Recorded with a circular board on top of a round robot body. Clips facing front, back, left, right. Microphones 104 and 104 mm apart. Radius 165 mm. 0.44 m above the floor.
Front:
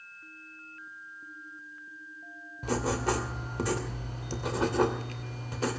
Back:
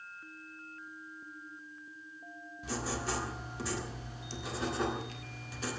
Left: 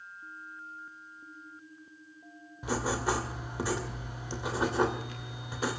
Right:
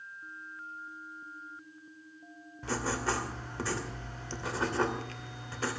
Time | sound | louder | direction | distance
2.6 | writing | front 8 dB, left 2 dB | 15° left | 2.5 m